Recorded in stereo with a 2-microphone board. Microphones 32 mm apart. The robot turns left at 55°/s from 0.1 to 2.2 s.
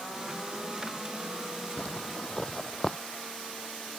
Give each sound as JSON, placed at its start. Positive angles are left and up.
{"t": 1.8, "sound": "a zipper", "side_deg": 45}